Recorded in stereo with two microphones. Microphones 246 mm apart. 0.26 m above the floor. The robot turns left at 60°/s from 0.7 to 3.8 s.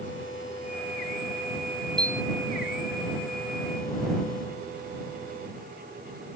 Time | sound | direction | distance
2.0 | a piano | 20° right (ahead or behind) | ?